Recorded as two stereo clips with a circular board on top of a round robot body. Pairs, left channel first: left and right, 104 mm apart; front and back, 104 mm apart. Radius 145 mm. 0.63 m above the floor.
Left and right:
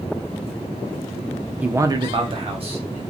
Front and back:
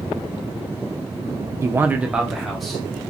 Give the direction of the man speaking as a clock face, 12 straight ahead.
5 o'clock.